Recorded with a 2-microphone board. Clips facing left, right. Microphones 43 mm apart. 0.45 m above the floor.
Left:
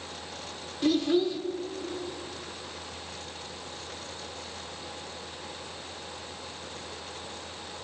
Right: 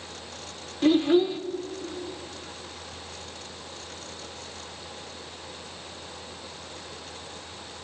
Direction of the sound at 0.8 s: 25° right (ahead or behind).